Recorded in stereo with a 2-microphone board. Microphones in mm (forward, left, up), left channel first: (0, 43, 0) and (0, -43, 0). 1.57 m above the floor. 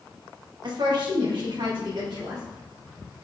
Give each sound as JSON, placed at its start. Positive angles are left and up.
{"t": 0.6, "sound": "a woman speaking", "side_deg": -60, "distance_m": 1.8}